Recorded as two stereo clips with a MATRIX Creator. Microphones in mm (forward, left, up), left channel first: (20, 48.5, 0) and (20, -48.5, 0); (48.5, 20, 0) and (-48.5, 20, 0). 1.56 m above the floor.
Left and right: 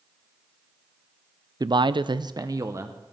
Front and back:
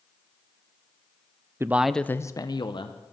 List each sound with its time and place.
1.6 s a man speaking: 125° right, 0.5 m; by 3.1 s 25° right, 1.2 m